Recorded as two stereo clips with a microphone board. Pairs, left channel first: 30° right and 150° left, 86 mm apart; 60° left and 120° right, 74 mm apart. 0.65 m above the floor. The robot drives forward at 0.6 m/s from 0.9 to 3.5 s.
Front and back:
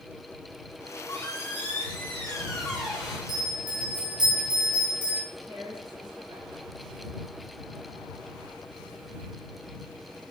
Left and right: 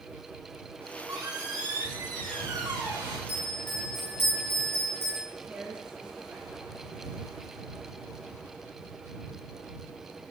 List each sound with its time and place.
0.8 s a squeak: 80° right, 1.7 m; by 3.2 s 125° right, 2.0 m
3.3 s a bell: 115° left, 2.5 m; by 5.2 s 120° left, 2.5 m
5.3 s a woman speaking: 170° left, 1.4 m